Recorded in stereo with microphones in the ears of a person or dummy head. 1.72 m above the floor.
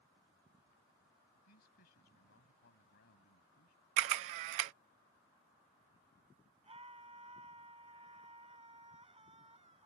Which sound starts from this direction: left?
A man speaking, at 1.4 s.